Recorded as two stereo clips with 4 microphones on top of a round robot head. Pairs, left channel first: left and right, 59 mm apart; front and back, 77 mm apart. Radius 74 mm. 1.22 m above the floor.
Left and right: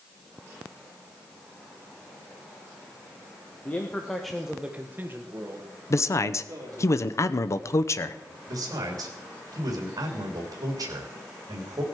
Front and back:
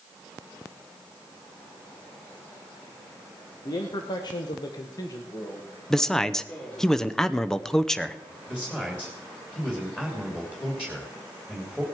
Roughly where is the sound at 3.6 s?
Ahead left.